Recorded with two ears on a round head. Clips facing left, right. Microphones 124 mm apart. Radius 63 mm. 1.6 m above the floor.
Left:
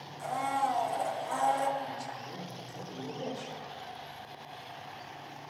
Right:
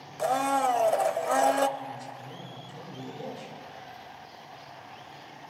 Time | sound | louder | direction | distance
0.2 | a blender | right 6 dB | 70° right (ahead or behind) | 0.6 m
1.8 | a man speaking | left 1 dB | 85° left | 7 m